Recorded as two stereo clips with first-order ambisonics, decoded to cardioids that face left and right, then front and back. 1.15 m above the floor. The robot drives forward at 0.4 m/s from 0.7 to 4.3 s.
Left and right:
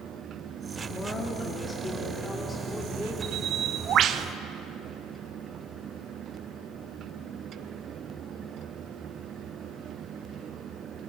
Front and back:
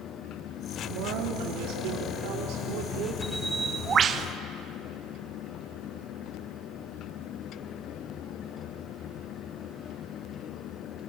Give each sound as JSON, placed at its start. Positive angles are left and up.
{"t": 0.9, "sound": "a woman speaking", "azimuth_deg": 170, "distance_m": 2.5}
{"t": 3.2, "sound": "a bird", "azimuth_deg": -90, "distance_m": 0.7}